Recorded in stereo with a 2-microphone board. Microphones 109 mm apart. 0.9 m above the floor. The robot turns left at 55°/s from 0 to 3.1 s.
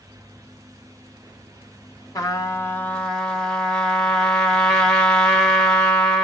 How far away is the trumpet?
About 0.9 m.